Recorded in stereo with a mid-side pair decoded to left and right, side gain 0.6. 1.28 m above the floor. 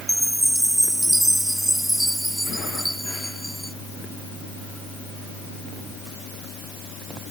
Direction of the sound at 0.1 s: 5° right.